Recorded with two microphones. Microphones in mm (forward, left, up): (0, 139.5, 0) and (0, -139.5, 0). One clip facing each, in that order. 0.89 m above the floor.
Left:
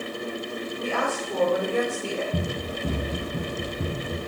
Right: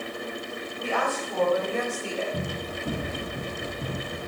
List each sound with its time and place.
0.8 s a woman speaking: 50° left (ahead or behind), 4 m; by 2.2 s 65° left (ahead or behind), 3 m
2.3 s running footsteps: 60° left (ahead or behind), 4.5 m; by 4.2 s 70° left (ahead or behind), 3.5 m